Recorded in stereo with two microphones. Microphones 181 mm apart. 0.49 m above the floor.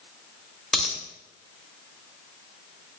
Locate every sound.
0.7 s a dropped coin: centre (ahead or behind), 0.6 m